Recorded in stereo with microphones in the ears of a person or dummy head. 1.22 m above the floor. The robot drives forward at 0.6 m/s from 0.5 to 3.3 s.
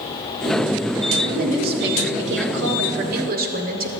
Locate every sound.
1.2 s a woman speaking: 40° right (ahead or behind), 1.1 m; by 3.9 s 45° right (ahead or behind), 1.1 m